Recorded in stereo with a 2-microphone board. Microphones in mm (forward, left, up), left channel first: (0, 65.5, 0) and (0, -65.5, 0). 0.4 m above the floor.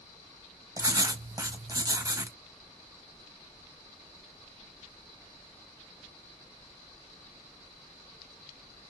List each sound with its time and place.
0.8 s writing: 30° right (ahead or behind), 0.7 m